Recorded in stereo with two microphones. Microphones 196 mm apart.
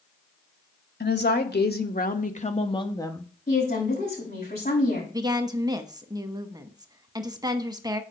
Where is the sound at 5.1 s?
20° right (ahead or behind), 1.0 m.